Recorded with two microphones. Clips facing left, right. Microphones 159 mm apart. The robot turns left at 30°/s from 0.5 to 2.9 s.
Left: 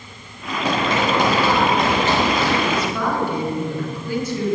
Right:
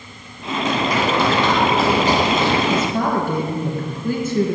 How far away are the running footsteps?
About 3.5 m.